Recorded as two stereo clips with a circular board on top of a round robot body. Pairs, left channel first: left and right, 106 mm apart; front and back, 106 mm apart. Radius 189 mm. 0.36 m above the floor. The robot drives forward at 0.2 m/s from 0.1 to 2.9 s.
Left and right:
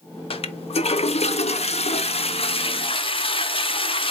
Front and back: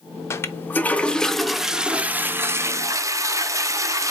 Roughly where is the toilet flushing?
Ahead left.